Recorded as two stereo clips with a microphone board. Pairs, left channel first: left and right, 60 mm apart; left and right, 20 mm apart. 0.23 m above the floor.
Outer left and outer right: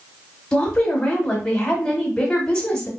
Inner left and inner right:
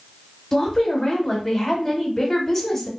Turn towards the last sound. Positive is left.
turn(degrees=15)  # may be behind; listen again after turning